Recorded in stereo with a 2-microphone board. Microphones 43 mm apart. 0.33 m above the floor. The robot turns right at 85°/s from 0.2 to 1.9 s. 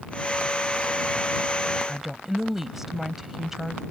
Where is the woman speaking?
10° right (ahead or behind).